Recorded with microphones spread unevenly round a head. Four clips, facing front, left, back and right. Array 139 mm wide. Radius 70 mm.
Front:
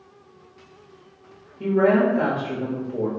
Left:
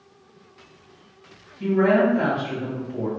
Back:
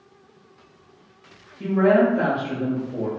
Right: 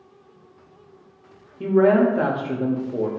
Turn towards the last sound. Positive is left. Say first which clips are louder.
# right 2 dB, back 1 dB
turn(degrees=-80)